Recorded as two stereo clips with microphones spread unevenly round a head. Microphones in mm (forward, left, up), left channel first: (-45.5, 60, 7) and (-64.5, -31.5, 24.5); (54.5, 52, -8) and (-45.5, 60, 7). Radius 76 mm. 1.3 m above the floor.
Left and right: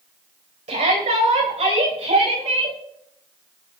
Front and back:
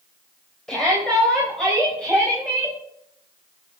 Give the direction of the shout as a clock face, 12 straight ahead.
3 o'clock.